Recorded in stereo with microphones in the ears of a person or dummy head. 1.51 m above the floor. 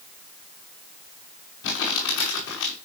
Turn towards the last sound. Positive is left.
turn(degrees=70)  # may be behind; listen again after turning